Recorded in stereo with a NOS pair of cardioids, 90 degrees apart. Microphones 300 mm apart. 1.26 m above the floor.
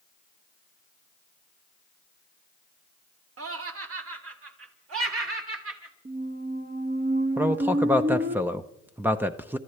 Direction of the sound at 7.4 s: 5° right.